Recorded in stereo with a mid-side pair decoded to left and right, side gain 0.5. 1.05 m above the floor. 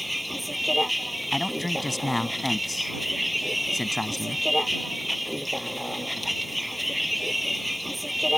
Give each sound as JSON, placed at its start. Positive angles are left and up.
{"t": 0.0, "sound": "a vehicle", "azimuth_deg": 0}
{"t": 1.3, "sound": "a man speaking", "azimuth_deg": 10}